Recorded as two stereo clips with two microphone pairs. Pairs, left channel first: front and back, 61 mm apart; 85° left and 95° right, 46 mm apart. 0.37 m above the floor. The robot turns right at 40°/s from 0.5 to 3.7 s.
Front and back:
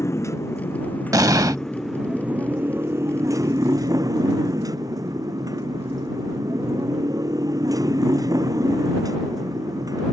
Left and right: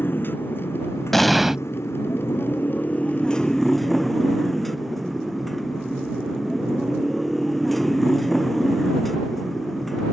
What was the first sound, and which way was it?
A motorcycle, 45° left.